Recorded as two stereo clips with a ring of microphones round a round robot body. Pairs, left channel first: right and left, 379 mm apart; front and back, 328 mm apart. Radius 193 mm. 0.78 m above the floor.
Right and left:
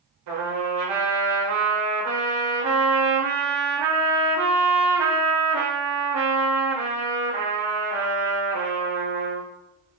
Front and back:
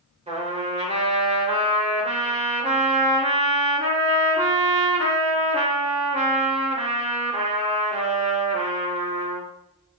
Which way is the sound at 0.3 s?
110° left.